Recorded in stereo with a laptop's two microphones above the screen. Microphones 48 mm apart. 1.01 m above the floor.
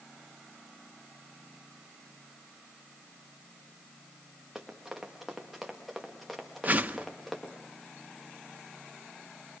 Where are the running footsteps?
10° right (ahead or behind), 5 m; by 7.5 s 5° left (ahead or behind), 5.5 m.